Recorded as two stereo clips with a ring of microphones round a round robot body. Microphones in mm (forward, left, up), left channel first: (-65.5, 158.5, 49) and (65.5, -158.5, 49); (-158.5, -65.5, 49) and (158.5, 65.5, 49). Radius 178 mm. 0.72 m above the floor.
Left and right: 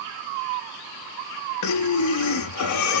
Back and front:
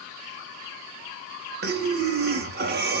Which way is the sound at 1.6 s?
80° left.